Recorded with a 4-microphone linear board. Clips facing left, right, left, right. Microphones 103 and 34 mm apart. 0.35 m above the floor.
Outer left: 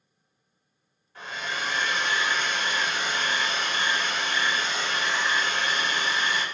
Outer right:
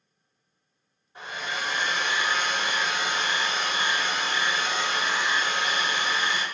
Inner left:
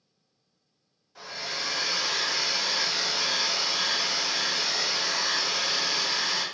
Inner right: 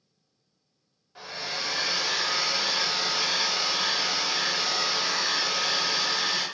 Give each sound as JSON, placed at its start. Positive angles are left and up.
{"t": 1.1, "sound": "a hair dryer", "side_deg": -20, "distance_m": 1.1}